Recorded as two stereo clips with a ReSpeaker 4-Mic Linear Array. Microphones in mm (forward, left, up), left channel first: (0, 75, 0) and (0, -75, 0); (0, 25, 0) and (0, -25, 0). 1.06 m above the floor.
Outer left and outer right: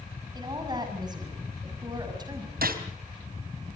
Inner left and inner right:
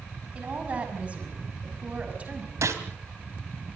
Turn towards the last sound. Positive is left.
turn(degrees=-75)  # may be behind; listen again after turning